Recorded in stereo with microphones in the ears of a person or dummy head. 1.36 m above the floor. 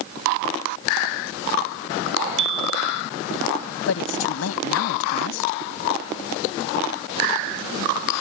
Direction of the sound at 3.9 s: 80° left.